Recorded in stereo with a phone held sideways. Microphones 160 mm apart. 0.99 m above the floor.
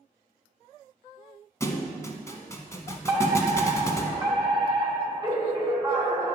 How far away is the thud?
About 0.9 m.